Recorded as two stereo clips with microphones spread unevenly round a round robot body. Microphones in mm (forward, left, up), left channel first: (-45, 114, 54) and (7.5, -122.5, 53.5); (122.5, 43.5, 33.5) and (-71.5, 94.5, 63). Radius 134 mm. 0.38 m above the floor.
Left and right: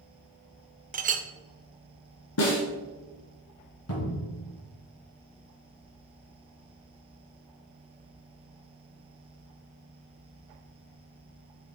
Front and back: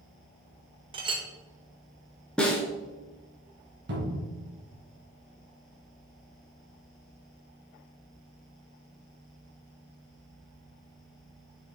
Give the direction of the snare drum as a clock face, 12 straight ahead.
10 o'clock.